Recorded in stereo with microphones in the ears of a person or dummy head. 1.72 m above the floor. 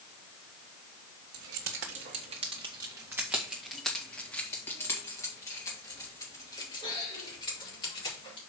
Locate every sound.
1.3 s keys jangling: 60° right (ahead or behind), 1.3 m; by 8.5 s 30° left (ahead or behind), 4 m